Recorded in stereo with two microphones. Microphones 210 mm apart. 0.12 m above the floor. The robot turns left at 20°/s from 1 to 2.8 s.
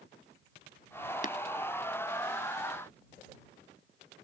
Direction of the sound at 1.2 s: 40° left (ahead or behind).